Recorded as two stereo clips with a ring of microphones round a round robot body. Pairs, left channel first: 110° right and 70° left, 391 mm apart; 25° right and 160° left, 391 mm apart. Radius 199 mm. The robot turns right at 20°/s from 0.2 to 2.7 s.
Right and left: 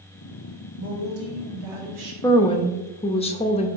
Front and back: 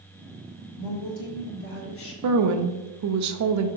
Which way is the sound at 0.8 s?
5° left.